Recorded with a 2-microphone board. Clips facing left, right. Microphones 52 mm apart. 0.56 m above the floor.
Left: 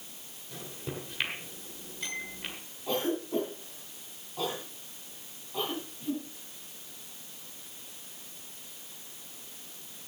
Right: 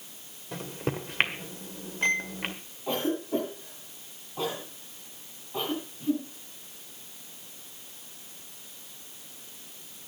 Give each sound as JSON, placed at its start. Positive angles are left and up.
{"t": 0.5, "sound": "a microwave", "side_deg": -50, "distance_m": 1.8}
{"t": 2.9, "sound": "a cough", "side_deg": -15, "distance_m": 4.5}